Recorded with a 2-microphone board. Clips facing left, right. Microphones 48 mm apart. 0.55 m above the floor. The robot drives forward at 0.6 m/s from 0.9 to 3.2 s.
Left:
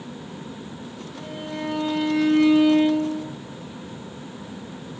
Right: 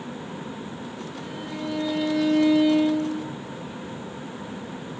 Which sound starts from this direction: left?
A violin, at 1.2 s.